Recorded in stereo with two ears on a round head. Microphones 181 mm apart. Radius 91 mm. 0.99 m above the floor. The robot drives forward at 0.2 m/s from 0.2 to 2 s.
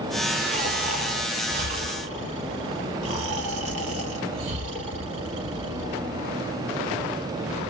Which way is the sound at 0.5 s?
40° right (ahead or behind).